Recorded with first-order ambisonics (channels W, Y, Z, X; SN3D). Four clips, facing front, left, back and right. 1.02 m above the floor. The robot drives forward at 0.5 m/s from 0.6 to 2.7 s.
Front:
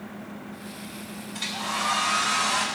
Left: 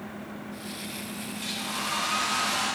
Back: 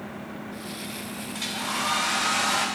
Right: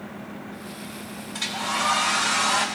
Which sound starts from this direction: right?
A hair dryer, at 1.3 s.